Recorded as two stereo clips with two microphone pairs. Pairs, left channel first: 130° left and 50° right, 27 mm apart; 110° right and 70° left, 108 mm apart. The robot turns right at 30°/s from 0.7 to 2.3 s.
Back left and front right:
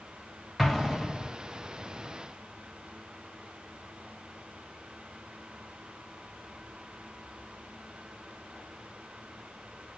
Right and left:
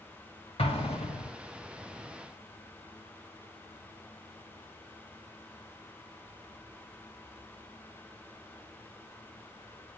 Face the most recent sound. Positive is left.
turn(degrees=-90)